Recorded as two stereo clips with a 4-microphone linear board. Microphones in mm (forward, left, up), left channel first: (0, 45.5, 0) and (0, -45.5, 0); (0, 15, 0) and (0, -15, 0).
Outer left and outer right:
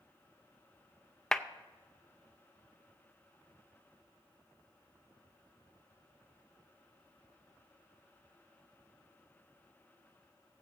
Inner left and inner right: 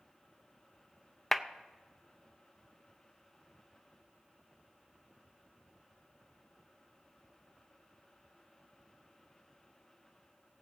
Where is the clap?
5° left (ahead or behind), 0.5 m.